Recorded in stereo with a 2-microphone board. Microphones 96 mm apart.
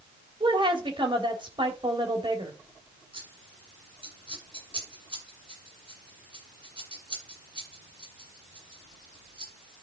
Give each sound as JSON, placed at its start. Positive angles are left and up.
{"t": 0.4, "sound": "a woman speaking", "side_deg": -55, "distance_m": 3.0}
{"t": 3.1, "sound": "scissors", "side_deg": -60, "distance_m": 8.5}